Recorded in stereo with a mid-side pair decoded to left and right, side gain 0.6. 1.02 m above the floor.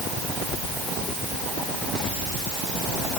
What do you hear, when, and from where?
Only background noise.